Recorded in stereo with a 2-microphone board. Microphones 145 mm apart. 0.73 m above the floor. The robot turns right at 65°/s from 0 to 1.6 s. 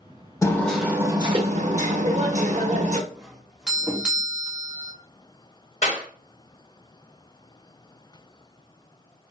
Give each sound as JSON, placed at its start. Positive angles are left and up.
{"t": 0.4, "sound": "hammering", "azimuth_deg": 155, "distance_m": 0.9}
{"t": 3.1, "sound": "a doorbell", "side_deg": -5, "distance_m": 1.0}
{"t": 5.8, "sound": "a clap", "side_deg": 60, "distance_m": 2.5}